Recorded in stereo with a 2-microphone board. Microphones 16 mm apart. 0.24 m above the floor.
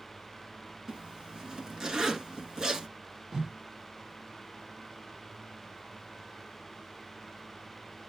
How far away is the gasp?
I don't hear a gasp.